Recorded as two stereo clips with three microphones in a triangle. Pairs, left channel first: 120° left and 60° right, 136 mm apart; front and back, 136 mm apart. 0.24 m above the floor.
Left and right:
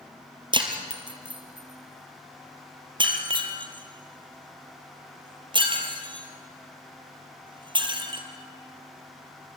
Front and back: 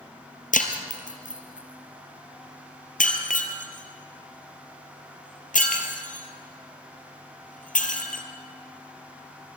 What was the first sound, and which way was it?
Breaking glass, 5° right.